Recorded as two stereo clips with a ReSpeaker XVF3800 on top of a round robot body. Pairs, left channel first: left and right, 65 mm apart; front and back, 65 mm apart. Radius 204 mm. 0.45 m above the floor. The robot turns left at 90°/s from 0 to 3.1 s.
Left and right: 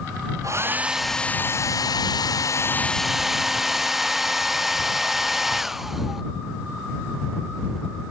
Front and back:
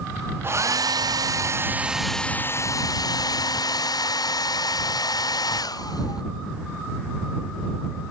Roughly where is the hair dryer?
Behind right.